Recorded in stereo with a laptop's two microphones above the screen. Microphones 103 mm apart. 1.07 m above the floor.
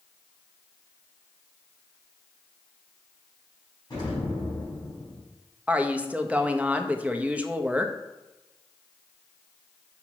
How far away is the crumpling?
I don't hear crumpling.